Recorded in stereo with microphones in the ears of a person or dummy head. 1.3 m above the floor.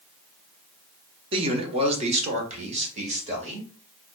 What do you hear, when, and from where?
1.3 s a man speaking: 30° right (ahead or behind), 0.8 m; by 3.7 s 35° right (ahead or behind), 1.9 m